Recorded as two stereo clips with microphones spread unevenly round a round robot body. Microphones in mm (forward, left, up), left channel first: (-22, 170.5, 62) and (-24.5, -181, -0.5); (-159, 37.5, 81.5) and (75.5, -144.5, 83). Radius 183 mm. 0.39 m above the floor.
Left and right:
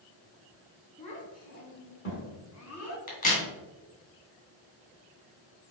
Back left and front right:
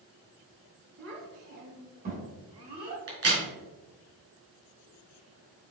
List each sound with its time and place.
1.0 s a child speaking: 15° left, 2.5 m; by 3.0 s 40° left, 2.5 m
3.1 s a crack: 20° left, 3 m